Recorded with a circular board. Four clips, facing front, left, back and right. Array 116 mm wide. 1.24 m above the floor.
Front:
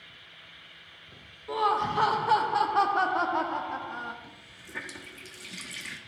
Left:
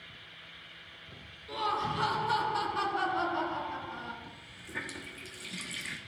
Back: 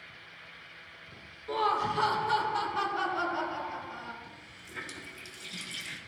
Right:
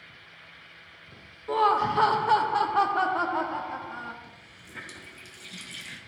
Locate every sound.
1.5 s laughter: 85° right, 0.8 m; by 4.1 s 30° right, 1.8 m
4.2 s a running tap: 35° left, 1.5 m